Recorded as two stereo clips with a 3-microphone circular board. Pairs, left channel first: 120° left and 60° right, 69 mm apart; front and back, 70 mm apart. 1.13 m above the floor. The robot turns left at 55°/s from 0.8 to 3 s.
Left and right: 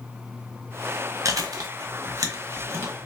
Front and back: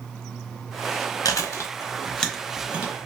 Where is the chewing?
25° right, 0.9 m; by 2.9 s 120° right, 0.9 m.